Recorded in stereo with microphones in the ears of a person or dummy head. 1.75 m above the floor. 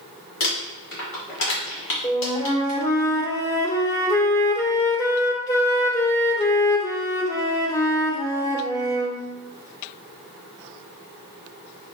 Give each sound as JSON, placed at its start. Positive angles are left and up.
{"t": 0.4, "sound": "crumpling", "side_deg": 65, "distance_m": 1.6}
{"t": 2.0, "sound": "a flute", "side_deg": 15, "distance_m": 0.6}